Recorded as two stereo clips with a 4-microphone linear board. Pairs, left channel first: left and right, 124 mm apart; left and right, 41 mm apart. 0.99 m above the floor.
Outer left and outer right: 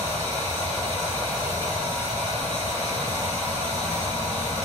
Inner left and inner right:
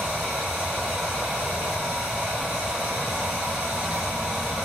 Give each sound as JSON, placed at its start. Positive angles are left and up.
{"t": 0.0, "sound": "running water", "side_deg": -25, "distance_m": 1.8}